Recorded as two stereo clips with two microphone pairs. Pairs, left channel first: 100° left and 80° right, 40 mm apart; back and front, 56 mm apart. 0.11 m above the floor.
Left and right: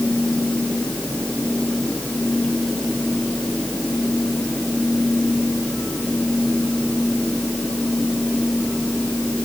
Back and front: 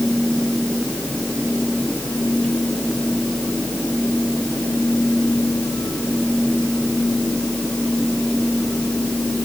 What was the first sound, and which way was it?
Only background noise.